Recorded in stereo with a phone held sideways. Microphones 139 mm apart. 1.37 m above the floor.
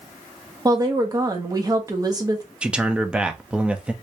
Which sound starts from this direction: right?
A woman speaking, at 0.7 s.